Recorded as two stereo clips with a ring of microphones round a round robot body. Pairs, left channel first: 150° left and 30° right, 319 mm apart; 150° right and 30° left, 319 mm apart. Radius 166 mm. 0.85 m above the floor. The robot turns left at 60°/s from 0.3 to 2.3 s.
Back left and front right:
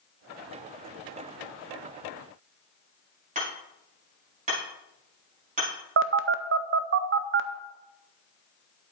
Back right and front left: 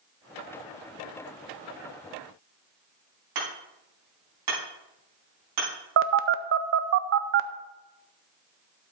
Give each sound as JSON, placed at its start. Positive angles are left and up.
{"t": 3.4, "sound": "hammering", "azimuth_deg": 40, "distance_m": 5.0}
{"t": 6.0, "sound": "a phone buzzing", "azimuth_deg": 0, "distance_m": 0.6}